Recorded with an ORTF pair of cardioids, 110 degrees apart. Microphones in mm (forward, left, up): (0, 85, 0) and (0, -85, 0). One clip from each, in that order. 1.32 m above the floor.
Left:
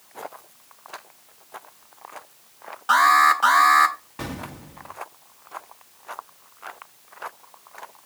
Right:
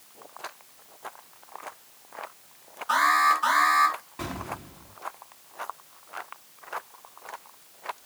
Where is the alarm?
65° left, 5 m.